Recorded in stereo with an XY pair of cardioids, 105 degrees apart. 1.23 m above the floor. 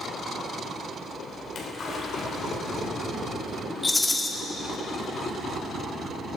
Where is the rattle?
15° left, 1.5 m.